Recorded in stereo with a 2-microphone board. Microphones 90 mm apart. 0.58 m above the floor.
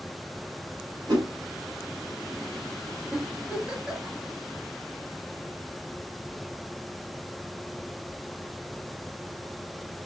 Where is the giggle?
15° right (ahead or behind), 2.5 m.